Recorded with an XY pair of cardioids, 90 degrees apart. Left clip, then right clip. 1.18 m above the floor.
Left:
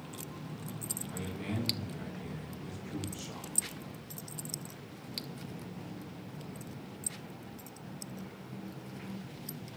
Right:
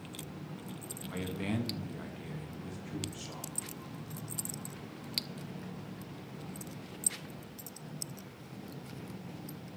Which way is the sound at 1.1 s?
65° right.